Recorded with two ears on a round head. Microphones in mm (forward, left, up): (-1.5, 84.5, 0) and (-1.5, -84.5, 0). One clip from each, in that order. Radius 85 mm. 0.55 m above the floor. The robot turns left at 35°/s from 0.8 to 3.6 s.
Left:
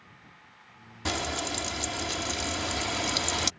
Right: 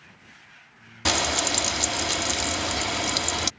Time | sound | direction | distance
1.1 | frying | 25° right (ahead or behind) | ?